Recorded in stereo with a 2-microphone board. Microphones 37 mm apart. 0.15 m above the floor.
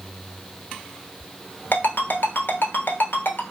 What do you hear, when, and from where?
1.7 s a ringtone: 60° left (ahead or behind), 1.0 m